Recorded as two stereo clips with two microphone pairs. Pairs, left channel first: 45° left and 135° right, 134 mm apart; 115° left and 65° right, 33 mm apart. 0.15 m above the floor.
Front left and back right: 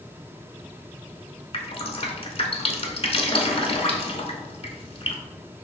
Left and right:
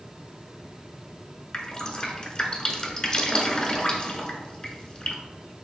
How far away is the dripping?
About 0.7 m.